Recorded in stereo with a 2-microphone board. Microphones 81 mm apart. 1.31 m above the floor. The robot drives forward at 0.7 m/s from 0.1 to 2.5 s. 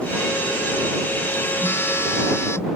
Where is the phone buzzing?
30° left (ahead or behind); by 2.7 s 35° left (ahead or behind).